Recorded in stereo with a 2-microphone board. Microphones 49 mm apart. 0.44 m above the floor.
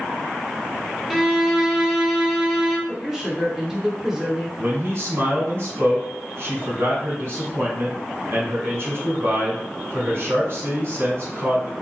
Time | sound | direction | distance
1.1 | a violin | centre (ahead or behind) | 0.7 m
2.9 | a woman speaking | 10° right (ahead or behind) | 1.0 m
4.6 | a man speaking | 50° right (ahead or behind) | 2.0 m